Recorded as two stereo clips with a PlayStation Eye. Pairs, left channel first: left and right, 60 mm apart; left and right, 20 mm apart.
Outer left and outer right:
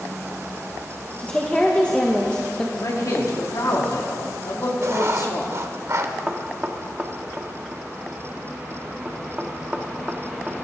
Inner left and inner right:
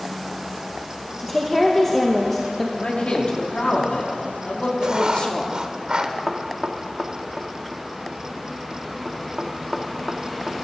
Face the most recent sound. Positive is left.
turn(degrees=-20)  # may be behind; listen again after turning